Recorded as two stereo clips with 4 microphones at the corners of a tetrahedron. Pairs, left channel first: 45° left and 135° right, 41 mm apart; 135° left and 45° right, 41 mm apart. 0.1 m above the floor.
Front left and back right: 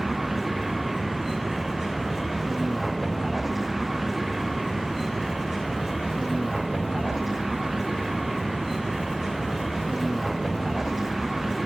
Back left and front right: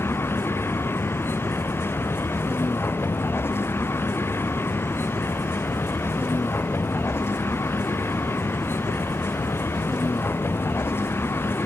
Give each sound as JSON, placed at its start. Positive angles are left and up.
{"t": 0.0, "sound": "a vehicle", "azimuth_deg": 140}